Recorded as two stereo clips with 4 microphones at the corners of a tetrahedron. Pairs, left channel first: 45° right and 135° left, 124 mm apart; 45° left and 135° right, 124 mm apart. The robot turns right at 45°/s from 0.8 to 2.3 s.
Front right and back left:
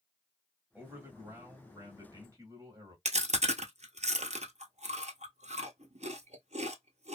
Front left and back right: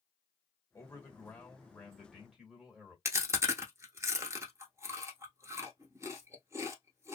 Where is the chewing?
160° left, 0.9 m.